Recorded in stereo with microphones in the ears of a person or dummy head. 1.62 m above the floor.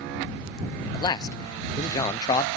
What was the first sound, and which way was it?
A man speaking, 20° left (ahead or behind).